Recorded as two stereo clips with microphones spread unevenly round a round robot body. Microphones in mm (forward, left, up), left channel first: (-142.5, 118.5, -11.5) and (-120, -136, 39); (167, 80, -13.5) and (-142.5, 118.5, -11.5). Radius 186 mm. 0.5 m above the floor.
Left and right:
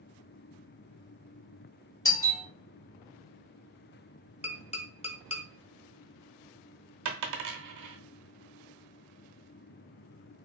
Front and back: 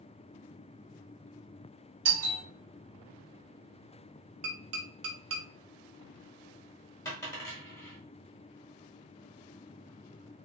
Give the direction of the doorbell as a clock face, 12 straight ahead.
7 o'clock.